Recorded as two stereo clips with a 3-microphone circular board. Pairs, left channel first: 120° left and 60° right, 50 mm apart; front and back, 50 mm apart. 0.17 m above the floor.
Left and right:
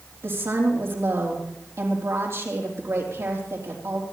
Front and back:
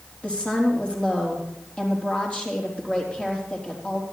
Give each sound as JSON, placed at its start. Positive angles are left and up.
{"t": 0.2, "sound": "a woman speaking", "azimuth_deg": -65, "distance_m": 4.5}